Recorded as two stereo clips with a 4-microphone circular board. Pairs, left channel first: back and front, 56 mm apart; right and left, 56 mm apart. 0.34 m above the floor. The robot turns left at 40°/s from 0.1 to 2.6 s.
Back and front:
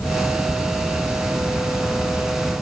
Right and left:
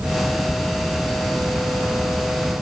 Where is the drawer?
No drawer in this recording.